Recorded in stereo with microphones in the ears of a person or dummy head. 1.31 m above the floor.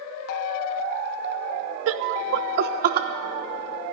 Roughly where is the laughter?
Right.